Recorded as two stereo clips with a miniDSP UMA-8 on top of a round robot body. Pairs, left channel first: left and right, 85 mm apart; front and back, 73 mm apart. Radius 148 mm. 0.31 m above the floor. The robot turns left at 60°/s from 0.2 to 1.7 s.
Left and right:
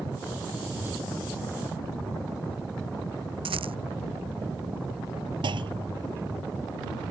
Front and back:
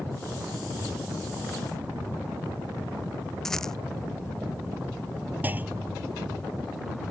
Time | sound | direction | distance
3.5 | a rattle | 85° right | ?
5.4 | a clunk | 115° right | ?